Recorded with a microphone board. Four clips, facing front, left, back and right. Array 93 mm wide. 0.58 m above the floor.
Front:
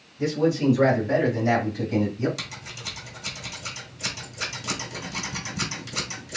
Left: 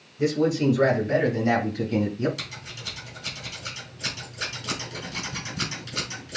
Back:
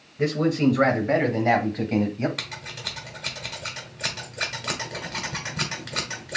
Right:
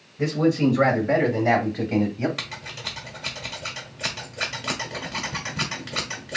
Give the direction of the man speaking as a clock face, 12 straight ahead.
5 o'clock.